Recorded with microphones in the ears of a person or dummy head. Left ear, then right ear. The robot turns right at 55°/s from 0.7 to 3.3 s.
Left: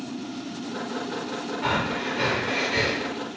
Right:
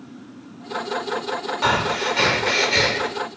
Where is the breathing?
100° right, 0.6 m; by 3.1 s 20° right, 0.6 m.